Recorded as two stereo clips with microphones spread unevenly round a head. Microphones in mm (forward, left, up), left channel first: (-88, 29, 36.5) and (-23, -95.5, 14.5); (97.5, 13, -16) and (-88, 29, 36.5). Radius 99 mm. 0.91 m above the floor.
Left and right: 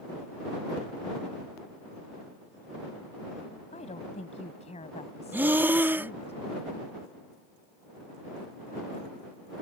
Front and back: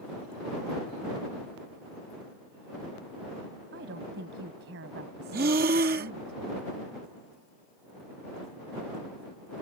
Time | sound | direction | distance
3.7 | a woman speaking | 155° left | ?
5.3 | breathing | 135° right | ?